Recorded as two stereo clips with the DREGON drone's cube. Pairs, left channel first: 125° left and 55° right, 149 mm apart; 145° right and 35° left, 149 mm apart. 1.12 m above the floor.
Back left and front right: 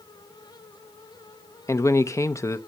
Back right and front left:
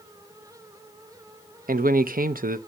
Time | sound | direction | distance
1.7 | a man speaking | 55° left | 0.7 m